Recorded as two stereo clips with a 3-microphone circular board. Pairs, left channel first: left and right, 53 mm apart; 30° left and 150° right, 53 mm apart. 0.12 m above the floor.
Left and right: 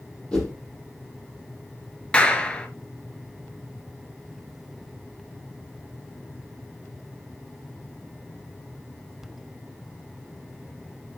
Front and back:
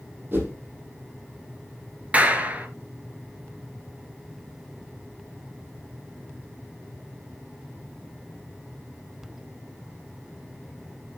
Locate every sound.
0.3 s a whoosh: 160° left, 5 m
2.1 s a clap: 155° left, 1.6 m